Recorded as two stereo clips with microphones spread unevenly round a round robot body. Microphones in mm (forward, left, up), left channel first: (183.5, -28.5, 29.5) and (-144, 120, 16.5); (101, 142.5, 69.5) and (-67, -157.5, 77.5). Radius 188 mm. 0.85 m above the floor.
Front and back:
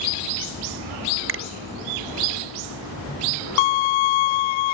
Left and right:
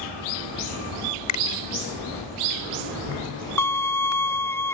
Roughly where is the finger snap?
Left.